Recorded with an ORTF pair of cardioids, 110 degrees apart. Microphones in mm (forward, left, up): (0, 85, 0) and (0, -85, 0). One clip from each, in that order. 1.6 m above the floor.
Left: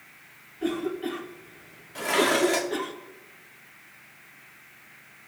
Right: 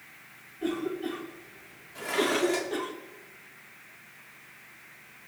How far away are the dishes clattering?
About 2.5 m.